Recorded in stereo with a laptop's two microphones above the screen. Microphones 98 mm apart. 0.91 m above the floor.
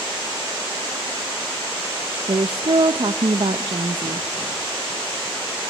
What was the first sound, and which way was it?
A woman speaking, 60° right (ahead or behind).